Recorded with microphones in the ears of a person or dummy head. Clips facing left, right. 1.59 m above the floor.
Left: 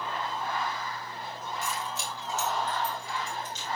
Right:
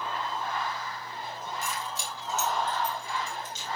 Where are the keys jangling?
85° right, 4 m; by 3.7 s 80° right, 5.5 m.